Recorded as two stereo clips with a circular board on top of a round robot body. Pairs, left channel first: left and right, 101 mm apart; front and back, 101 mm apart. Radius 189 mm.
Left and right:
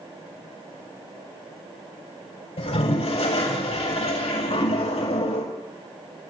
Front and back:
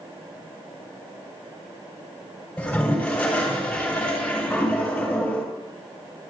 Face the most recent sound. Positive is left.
turn(degrees=80)